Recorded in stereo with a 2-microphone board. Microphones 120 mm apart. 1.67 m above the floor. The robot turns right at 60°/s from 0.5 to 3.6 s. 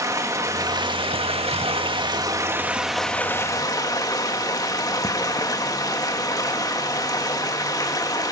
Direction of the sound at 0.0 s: 145° right.